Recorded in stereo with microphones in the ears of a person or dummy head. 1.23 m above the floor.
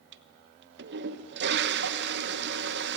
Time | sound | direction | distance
0.1 | a toilet flushing | 65° right (ahead or behind) | 1.0 m